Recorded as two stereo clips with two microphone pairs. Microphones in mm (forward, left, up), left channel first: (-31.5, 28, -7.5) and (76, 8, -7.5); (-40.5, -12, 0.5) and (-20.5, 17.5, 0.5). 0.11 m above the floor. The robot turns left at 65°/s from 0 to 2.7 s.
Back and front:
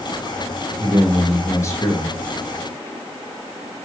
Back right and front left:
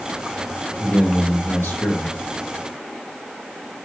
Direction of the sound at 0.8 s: 75° right.